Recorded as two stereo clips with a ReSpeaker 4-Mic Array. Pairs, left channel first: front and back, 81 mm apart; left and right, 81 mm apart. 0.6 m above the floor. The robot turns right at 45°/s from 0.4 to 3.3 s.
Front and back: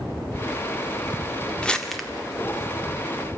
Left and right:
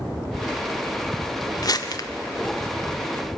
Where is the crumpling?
75° left, 1.7 m; by 2.1 s 95° left, 1.7 m.